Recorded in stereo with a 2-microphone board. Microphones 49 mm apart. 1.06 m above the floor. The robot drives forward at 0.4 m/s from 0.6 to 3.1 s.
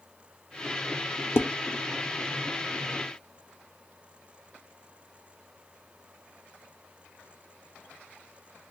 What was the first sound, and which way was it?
Dishes clattering, 55° left (ahead or behind).